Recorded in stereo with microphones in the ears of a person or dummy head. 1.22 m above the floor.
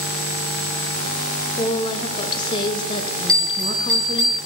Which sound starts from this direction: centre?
A bell, at 3.3 s.